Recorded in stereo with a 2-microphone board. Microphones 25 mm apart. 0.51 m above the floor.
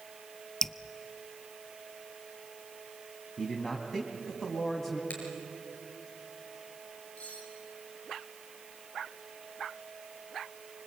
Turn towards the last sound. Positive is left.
turn(degrees=65)  # may be behind; listen again after turning